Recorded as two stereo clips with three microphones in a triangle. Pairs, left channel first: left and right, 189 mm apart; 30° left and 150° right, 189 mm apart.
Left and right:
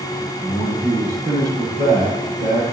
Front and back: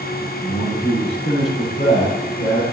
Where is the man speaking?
20° right, 5.5 m.